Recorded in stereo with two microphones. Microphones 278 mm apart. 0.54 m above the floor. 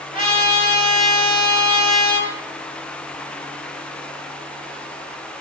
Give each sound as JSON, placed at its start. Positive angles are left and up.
{"t": 0.1, "sound": "a trumpet", "side_deg": 30, "distance_m": 5.0}